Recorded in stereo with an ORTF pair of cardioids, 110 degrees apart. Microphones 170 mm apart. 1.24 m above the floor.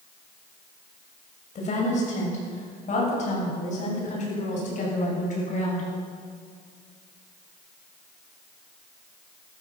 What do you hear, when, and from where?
1.6 s a woman speaking: 45° left, 7.5 m